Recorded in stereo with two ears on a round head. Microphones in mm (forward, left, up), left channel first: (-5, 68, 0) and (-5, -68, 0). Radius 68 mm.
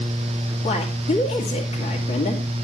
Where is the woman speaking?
50° left (ahead or behind), 2.0 m.